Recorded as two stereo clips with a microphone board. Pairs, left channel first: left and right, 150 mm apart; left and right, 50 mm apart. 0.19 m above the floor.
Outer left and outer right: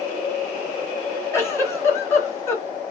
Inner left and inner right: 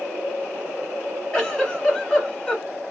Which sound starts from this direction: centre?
A giggle, at 1.3 s.